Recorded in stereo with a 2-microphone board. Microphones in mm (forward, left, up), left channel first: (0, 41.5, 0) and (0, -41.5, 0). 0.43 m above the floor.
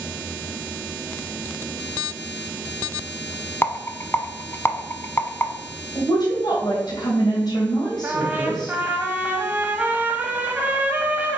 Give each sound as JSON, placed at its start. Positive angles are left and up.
{"t": 3.6, "sound": "a rattle", "side_deg": 30, "distance_m": 0.8}
{"t": 6.0, "sound": "a woman speaking", "side_deg": 60, "distance_m": 2.5}
{"t": 8.0, "sound": "a trumpet", "side_deg": -20, "distance_m": 1.1}